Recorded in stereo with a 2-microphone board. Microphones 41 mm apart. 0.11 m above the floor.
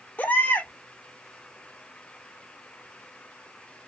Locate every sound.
0.2 s a baby crying: 40° left (ahead or behind), 0.8 m